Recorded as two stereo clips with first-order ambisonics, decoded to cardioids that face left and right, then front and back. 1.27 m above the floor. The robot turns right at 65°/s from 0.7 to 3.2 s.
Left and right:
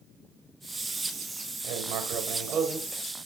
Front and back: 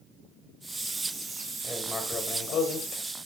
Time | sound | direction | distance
1.6 | writing | 95° right | 1.9 m